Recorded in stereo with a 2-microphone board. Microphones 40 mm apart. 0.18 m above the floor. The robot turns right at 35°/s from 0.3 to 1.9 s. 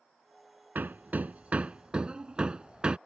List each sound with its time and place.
0.8 s hammering: 55° right (ahead or behind); by 3.0 s 25° right (ahead or behind)